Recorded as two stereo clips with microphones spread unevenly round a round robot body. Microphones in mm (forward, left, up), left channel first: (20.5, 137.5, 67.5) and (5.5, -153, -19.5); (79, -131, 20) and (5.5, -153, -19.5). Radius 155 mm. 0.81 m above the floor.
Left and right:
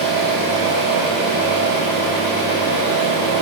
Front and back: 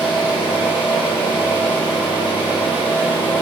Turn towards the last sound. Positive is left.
turn(degrees=25)